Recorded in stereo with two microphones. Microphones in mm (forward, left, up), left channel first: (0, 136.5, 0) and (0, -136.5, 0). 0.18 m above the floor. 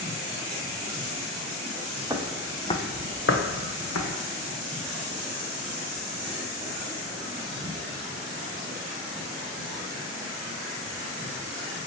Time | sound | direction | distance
2.1 | footsteps | 15° right (ahead or behind) | 0.6 m